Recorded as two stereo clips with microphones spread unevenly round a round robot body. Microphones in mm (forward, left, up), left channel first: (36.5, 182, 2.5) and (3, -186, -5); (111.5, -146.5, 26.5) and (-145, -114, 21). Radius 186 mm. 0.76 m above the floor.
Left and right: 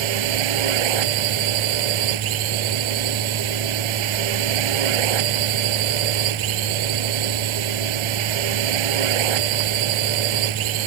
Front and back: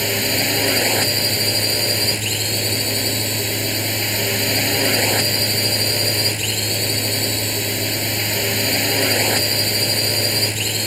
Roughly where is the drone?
Right.